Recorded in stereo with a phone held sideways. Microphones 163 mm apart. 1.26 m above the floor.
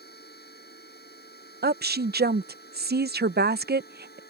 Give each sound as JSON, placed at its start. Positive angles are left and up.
{"t": 0.0, "sound": "a machine running", "side_deg": 80}
{"t": 1.6, "sound": "a woman speaking", "side_deg": -80}